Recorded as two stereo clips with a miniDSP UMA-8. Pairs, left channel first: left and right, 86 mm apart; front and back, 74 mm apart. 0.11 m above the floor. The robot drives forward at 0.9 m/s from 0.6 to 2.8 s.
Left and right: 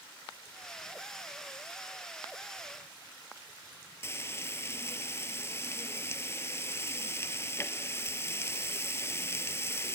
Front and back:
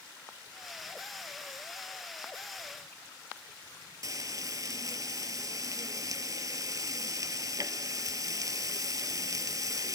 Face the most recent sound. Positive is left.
turn(degrees=145)